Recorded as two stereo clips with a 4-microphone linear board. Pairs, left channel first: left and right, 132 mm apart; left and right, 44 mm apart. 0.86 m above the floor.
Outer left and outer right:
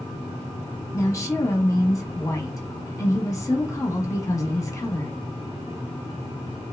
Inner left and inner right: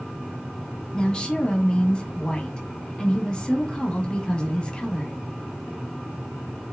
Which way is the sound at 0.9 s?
25° left (ahead or behind).